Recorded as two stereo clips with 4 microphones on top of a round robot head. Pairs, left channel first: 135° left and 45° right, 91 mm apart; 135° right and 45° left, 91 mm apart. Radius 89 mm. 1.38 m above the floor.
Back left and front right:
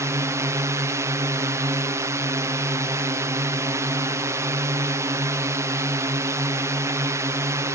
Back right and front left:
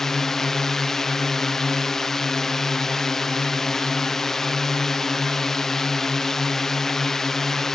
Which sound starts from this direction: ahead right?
A drone, at 0.0 s.